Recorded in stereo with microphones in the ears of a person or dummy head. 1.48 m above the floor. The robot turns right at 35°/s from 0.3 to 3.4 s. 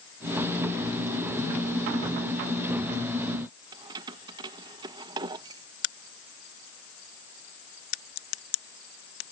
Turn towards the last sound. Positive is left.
turn(degrees=70)  # may be behind; listen again after turning